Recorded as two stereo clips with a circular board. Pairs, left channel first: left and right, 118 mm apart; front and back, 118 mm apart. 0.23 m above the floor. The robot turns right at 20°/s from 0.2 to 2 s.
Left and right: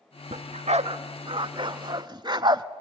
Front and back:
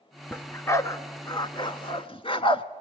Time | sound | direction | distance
0.3 | a dog barking | 75° right | 0.7 m